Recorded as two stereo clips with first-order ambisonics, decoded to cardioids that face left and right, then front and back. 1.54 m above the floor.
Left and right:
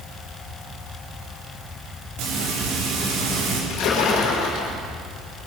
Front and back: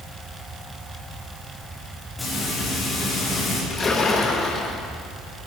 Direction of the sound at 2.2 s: 85° right.